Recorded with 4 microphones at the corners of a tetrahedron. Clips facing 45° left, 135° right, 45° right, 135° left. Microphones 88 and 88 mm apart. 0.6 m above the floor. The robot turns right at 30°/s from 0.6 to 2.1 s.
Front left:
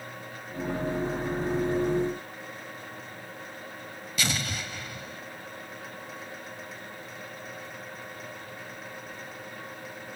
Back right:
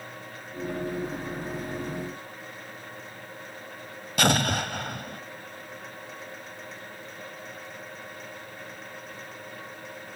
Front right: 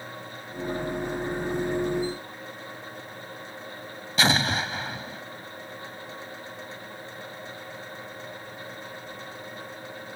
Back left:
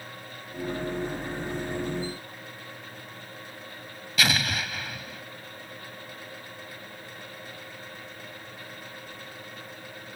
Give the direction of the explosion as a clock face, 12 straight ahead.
3 o'clock.